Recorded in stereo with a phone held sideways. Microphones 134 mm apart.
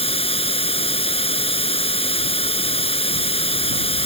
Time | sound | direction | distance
0.0 | running water | 45° left (ahead or behind) | ?